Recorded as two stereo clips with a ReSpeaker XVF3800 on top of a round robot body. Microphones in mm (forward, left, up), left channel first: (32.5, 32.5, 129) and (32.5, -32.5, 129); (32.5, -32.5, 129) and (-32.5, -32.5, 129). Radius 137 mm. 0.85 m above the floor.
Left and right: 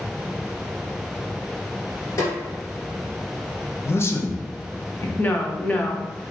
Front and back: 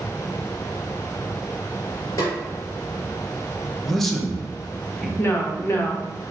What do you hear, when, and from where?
2.2 s a snare drum: 55° left, 2 m
3.8 s a man speaking: 85° left, 1.1 m
5.2 s a woman speaking: 35° left, 1.1 m